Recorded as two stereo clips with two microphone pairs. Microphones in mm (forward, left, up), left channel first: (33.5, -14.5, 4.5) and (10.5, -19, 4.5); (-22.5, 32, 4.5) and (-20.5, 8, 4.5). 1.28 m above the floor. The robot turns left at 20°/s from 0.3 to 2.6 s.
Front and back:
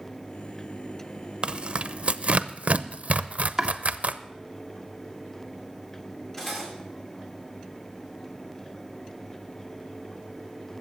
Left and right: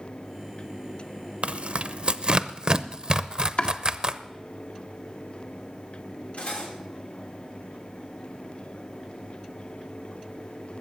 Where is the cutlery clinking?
90° left, 2.5 m.